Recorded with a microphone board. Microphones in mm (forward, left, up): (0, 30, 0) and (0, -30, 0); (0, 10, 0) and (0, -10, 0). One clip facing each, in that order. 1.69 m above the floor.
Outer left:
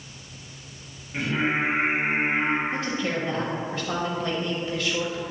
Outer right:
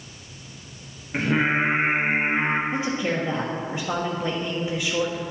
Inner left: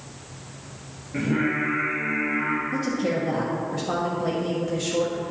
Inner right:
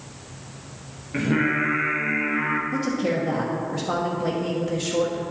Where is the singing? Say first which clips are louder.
Outer right 3 dB, inner right 2 dB; 45° right (ahead or behind), 1.2 m.